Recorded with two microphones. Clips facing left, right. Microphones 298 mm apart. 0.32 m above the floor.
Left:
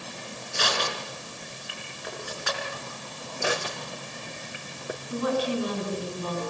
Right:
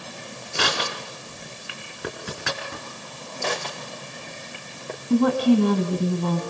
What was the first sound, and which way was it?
Crushing, 65° right (ahead or behind).